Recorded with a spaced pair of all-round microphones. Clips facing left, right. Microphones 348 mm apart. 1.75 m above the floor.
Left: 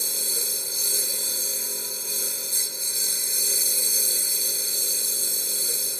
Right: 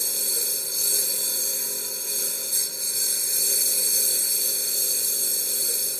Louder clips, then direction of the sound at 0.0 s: Even; centre (ahead or behind).